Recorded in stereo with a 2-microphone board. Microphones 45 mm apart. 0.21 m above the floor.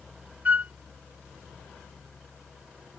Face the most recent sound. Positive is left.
turn(degrees=-40)  # may be behind; listen again after turning